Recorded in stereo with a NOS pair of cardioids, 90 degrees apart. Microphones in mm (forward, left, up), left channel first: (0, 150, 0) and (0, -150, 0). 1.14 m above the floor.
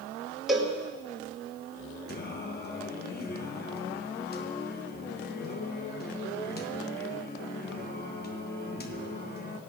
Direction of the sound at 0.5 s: Straight ahead.